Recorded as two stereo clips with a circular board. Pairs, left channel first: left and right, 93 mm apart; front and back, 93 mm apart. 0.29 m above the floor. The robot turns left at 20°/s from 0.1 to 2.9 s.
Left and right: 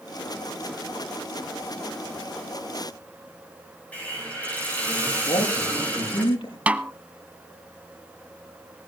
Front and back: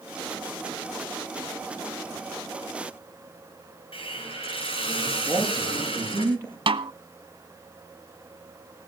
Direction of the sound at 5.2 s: 110° left.